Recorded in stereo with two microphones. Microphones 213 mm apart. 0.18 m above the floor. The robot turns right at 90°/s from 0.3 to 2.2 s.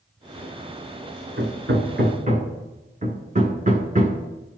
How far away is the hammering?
About 1.0 m.